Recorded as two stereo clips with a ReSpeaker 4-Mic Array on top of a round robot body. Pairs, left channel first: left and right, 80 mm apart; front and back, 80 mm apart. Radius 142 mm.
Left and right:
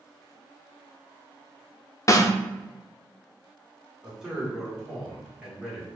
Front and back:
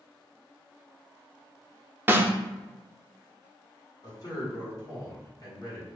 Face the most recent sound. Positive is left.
turn(degrees=-10)